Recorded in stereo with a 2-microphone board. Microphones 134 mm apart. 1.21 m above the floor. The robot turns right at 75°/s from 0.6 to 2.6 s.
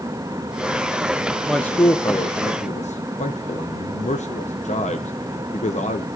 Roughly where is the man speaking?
Centre.